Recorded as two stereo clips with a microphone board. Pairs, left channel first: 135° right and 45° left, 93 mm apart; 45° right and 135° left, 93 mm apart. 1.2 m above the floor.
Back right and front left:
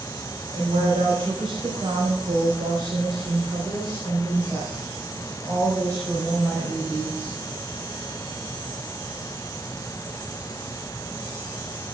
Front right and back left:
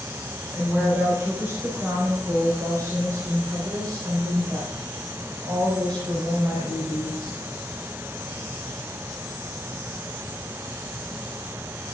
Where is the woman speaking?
60° left, 5 m; by 7.4 s 115° left, 5 m.